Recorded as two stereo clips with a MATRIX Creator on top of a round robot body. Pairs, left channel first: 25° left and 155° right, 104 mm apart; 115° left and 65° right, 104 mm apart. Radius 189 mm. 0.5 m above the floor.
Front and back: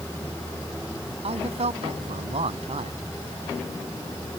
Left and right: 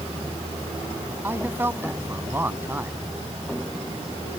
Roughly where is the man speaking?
Behind right.